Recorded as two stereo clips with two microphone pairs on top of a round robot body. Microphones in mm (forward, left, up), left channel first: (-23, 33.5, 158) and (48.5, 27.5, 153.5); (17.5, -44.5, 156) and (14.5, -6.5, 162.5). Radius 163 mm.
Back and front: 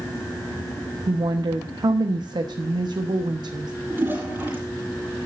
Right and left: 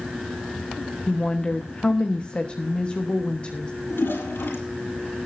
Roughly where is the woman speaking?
Ahead right.